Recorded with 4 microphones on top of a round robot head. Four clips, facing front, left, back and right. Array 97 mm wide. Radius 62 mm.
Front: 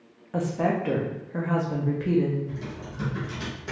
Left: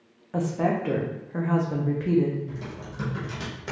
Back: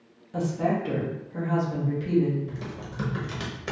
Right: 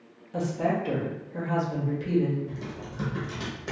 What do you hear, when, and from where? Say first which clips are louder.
0.3 s a woman speaking: left 2 dB, front 1 dB; 45° left, 0.6 m
2.5 s typing on a keyboard: even, front 1 dB; 175° left, 0.8 m